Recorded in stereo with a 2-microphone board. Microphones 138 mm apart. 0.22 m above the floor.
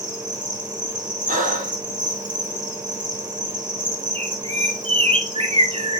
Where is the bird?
40° right (ahead or behind), 1.8 m.